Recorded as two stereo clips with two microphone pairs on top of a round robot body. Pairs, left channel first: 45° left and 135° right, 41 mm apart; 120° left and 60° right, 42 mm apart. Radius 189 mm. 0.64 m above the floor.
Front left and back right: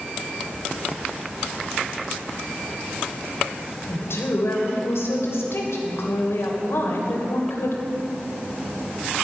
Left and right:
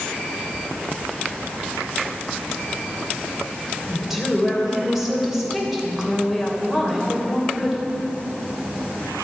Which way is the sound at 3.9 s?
25° left.